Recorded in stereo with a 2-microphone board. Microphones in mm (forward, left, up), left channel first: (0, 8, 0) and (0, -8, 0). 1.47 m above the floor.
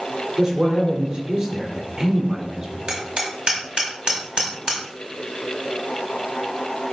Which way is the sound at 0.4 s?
45° right (ahead or behind).